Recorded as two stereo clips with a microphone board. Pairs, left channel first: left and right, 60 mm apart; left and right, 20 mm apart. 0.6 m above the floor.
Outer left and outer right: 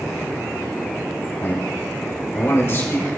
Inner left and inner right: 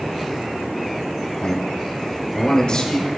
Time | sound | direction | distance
1.4 | a man speaking | 45° left (ahead or behind) | 2 m